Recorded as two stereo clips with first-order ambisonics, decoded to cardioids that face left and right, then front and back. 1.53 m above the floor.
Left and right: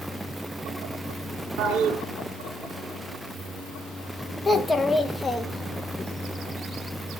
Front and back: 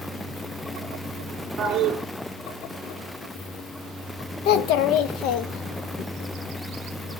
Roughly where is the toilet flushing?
Right.